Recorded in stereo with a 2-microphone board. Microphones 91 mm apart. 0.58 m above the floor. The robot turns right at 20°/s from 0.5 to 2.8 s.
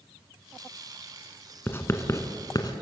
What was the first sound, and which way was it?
Writing, 20° left (ahead or behind).